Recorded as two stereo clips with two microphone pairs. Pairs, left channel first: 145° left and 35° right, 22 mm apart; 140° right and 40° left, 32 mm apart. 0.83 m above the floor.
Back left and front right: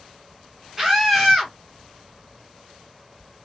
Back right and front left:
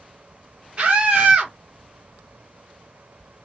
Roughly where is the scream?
Ahead left.